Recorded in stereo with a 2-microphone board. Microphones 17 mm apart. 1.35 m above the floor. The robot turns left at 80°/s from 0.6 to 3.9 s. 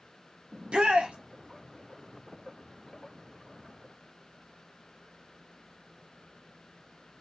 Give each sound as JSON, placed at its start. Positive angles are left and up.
{"t": 0.5, "sound": "a shout", "azimuth_deg": -55, "distance_m": 1.0}